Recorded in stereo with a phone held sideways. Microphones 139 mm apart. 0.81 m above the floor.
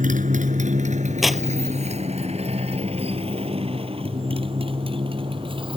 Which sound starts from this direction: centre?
Tearing paper, at 1.2 s.